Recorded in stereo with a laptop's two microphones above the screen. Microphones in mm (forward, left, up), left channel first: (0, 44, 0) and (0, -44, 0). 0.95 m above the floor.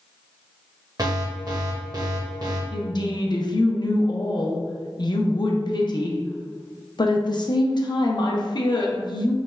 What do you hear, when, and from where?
1.0 s an alarm: 50° right (ahead or behind), 0.8 m
2.7 s a woman speaking: 55° left (ahead or behind), 0.5 m